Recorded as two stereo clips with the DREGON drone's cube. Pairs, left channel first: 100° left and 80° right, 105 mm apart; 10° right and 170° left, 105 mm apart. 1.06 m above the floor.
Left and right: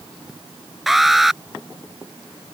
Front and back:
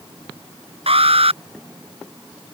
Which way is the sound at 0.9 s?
165° right.